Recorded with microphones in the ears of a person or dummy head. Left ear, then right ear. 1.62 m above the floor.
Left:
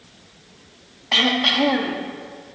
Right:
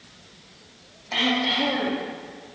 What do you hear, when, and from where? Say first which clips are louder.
1.1 s throat clearing: left 5 dB; 60° left (ahead or behind), 2.5 m